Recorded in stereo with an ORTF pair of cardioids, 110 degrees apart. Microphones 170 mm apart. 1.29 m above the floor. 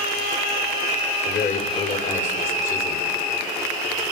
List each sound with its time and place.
1.2 s a man speaking: 60° left, 3.5 m